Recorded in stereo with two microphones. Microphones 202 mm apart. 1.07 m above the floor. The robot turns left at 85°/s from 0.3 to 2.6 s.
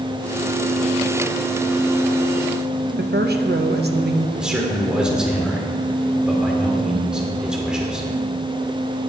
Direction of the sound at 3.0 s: 60° right (ahead or behind).